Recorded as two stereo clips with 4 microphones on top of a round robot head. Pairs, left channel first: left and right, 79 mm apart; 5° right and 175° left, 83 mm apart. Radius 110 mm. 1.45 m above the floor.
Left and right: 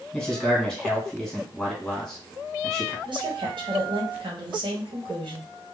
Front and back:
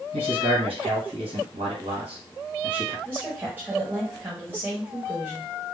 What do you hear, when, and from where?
0.1 s a man speaking: 175° left, 1.4 m
3.0 s a woman speaking: 115° right, 1.2 m